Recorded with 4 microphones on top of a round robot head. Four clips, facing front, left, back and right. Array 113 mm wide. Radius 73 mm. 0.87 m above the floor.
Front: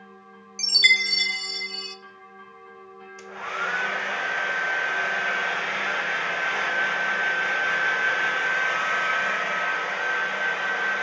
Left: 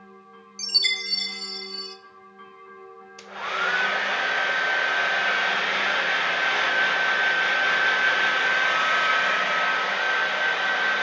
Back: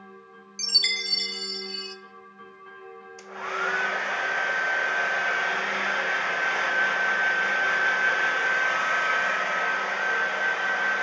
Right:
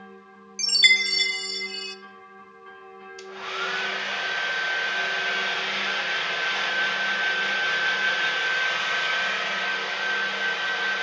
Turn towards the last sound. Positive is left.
turn(degrees=105)